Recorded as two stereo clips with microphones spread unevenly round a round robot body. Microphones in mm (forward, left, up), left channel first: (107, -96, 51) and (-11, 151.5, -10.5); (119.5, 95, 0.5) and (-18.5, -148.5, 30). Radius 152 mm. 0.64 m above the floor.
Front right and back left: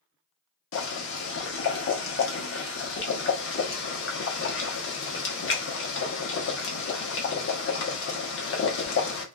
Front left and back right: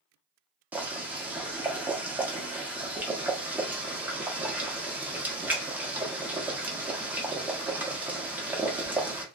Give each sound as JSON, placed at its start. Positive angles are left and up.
{"t": 0.7, "sound": "boiling", "azimuth_deg": -30, "distance_m": 0.9}